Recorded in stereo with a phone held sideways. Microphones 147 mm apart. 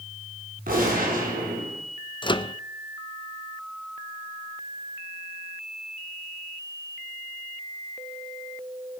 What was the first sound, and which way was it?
A gunshot, 80° right.